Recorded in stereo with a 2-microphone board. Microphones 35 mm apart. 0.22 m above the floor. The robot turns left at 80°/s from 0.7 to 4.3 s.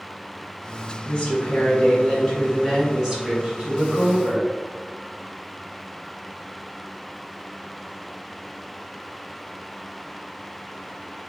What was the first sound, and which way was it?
A woman speaking, 140° left.